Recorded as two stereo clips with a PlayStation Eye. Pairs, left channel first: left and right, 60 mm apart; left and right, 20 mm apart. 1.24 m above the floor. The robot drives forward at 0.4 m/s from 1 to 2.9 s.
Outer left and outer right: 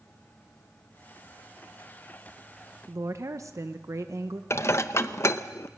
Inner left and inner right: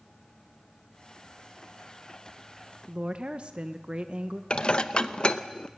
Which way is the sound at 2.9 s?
55° right (ahead or behind).